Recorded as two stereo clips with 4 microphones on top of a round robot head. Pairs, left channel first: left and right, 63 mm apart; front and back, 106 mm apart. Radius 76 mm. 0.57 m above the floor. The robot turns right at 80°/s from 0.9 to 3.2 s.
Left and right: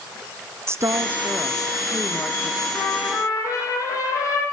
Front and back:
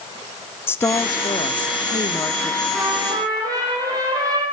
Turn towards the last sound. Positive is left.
turn(degrees=125)